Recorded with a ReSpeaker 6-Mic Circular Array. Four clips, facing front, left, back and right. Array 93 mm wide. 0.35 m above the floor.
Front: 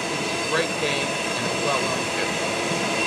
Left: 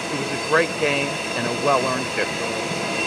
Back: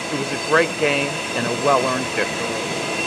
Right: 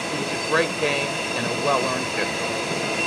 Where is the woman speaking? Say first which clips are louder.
Left 3 dB, back 8 dB; 160° left, 0.9 m.